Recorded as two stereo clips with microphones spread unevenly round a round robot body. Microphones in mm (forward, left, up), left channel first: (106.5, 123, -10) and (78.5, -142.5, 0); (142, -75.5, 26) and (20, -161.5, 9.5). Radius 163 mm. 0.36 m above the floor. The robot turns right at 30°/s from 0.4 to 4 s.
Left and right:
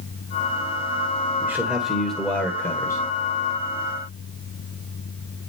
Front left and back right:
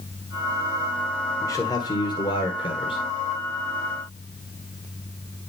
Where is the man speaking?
20° right, 1.4 m; by 3.0 s 30° left, 1.4 m.